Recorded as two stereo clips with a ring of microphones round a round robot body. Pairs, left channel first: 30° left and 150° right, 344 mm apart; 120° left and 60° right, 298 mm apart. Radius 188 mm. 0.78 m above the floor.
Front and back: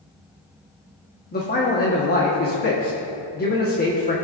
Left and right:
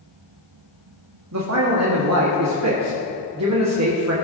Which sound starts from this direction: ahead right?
A man speaking, at 1.3 s.